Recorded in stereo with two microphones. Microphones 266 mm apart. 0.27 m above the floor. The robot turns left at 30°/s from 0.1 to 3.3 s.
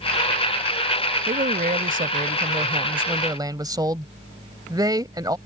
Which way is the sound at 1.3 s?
90° right.